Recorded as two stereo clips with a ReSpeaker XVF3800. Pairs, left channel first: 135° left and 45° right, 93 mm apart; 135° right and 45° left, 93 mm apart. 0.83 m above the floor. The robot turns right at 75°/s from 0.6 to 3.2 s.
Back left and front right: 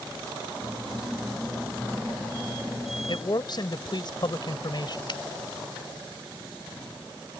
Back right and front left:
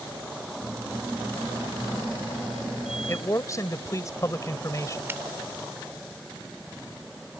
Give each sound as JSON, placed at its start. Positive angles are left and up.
{"t": 3.1, "sound": "a man speaking", "azimuth_deg": 160}
{"t": 5.1, "sound": "a finger snap", "azimuth_deg": 110}